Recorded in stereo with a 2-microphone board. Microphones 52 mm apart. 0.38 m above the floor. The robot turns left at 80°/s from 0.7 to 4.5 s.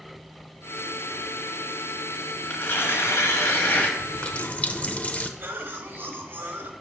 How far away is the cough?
About 1.3 m.